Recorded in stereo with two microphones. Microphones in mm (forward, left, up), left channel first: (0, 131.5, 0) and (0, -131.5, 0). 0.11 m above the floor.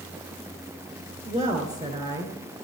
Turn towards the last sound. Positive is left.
turn(degrees=-25)  # may be behind; listen again after turning